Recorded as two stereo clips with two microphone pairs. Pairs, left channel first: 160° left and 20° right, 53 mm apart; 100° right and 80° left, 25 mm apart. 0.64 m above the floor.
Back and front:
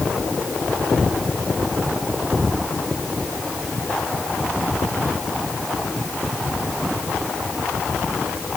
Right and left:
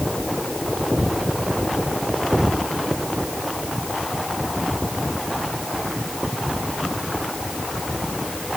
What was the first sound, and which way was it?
Only background noise.